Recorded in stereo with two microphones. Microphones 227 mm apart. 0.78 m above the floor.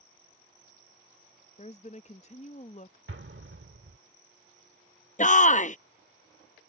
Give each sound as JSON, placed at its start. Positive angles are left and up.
{"t": 1.6, "sound": "a woman speaking", "side_deg": 30}
{"t": 3.1, "sound": "an explosion", "side_deg": -60}
{"t": 5.2, "sound": "a shout", "side_deg": 35}